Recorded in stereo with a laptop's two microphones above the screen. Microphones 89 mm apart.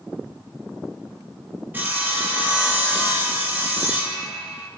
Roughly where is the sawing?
Right.